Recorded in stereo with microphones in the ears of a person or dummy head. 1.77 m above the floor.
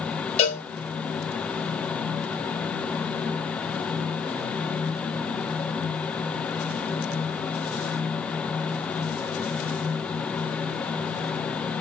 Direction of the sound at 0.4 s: 40° left (ahead or behind).